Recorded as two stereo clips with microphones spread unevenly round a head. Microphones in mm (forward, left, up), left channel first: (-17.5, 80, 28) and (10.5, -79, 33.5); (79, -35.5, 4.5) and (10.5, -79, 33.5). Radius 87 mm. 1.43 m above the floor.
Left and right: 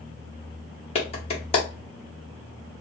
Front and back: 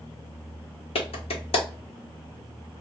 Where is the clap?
45° left, 1.0 m.